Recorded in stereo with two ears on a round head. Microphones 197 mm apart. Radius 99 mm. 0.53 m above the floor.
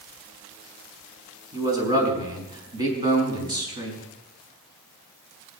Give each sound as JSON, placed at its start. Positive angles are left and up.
{"t": 1.5, "sound": "a man speaking", "side_deg": -20, "distance_m": 5.0}